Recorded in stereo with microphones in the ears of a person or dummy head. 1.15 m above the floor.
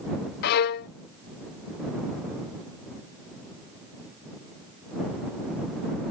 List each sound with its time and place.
0.4 s a violin: 60° left (ahead or behind)